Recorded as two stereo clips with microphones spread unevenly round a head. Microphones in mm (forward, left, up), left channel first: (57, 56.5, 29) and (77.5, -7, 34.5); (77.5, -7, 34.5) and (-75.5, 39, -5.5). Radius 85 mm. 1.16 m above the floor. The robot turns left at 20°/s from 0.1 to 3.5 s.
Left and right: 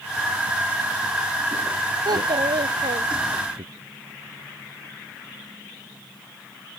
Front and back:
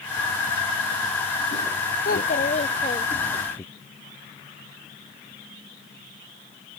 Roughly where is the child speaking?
Ahead right.